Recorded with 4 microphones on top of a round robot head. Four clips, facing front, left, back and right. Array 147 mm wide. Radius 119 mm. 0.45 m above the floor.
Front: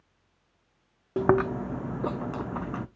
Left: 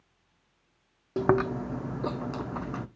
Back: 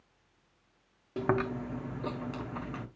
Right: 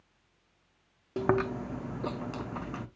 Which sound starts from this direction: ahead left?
Chewing, at 1.2 s.